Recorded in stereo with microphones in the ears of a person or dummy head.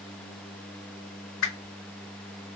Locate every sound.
1.4 s a whoosh: 80° left, 0.9 m